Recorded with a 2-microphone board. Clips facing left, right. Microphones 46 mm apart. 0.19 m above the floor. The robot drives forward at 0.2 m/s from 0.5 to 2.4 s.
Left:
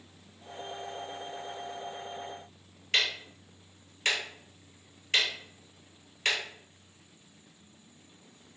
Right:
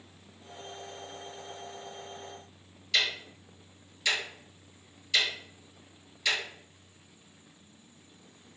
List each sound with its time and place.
2.9 s ticking: 45° left (ahead or behind), 1.3 m